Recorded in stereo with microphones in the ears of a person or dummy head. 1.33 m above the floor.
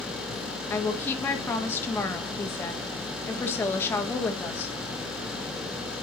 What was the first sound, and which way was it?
A woman speaking, 15° left (ahead or behind).